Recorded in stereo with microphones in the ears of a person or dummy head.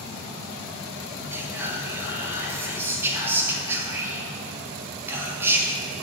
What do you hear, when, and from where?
1.3 s whispering: 15° right (ahead or behind), 1.2 m